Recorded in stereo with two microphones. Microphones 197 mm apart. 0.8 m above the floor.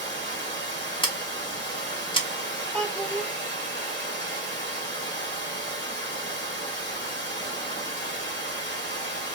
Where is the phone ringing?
I don't hear a phone ringing.